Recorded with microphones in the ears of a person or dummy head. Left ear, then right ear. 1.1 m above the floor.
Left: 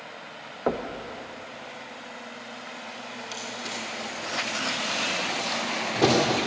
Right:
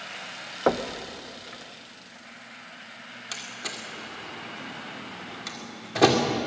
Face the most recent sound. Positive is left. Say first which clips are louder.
# even
turn(degrees=-25)  # may be behind; listen again after turning